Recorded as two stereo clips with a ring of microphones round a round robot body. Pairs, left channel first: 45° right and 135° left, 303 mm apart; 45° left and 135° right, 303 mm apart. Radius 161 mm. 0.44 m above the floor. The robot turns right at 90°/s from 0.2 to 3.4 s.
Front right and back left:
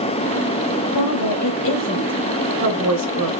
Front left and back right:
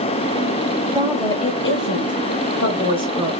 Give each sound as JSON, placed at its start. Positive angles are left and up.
{"t": 0.9, "sound": "a woman speaking", "azimuth_deg": -65, "distance_m": 2.0}